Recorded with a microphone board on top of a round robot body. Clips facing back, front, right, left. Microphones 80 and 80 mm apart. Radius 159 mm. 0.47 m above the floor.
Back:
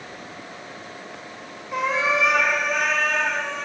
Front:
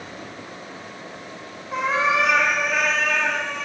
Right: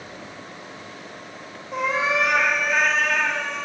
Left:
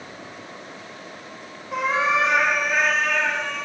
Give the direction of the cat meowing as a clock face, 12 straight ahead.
10 o'clock.